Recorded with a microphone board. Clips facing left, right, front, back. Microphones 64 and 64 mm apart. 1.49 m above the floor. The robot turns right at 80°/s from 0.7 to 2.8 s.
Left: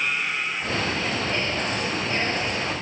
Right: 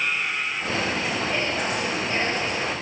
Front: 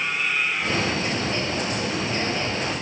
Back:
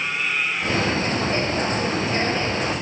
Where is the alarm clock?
No alarm clock in this recording.